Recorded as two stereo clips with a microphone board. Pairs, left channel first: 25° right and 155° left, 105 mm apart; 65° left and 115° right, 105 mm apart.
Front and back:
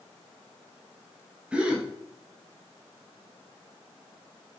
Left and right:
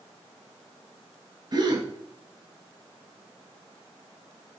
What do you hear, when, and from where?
1.5 s a gasp: 130° right, 0.7 m